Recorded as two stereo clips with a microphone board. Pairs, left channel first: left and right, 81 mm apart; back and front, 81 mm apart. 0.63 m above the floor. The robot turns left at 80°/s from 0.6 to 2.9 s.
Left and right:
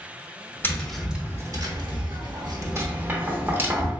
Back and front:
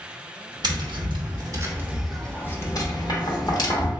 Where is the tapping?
25° left, 0.8 m; by 3.9 s 155° right, 0.8 m.